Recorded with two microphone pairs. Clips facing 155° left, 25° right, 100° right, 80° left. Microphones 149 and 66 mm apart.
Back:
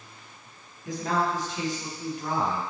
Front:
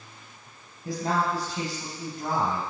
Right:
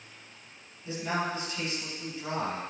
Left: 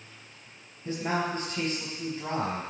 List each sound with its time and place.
0.8 s a man speaking: 30° left, 4 m